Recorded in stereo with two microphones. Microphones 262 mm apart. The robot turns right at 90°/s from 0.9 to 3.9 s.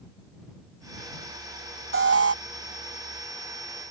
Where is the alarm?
115° right; by 2.4 s 80° right.